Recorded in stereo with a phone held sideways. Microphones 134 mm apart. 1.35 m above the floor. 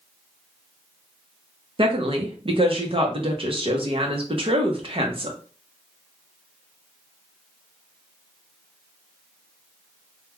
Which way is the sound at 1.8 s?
45° right (ahead or behind).